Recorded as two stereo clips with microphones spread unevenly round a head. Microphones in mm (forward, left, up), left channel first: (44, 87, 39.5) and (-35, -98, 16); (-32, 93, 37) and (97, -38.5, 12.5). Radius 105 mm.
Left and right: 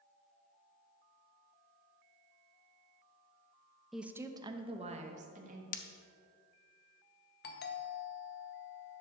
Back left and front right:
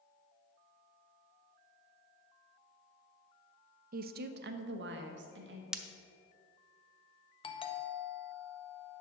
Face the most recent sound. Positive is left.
turn(degrees=75)